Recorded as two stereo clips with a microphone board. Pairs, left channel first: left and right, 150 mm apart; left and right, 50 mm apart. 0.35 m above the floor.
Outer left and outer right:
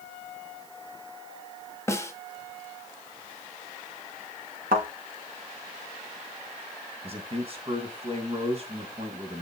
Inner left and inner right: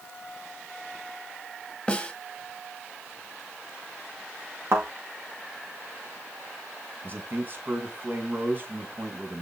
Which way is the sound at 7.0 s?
40° right (ahead or behind).